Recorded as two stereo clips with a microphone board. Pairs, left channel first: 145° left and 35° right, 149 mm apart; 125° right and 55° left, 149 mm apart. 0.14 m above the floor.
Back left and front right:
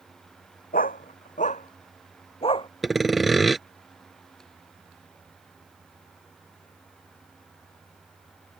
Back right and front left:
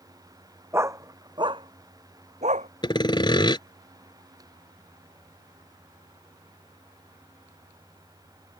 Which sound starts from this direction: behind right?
Sawing, at 2.8 s.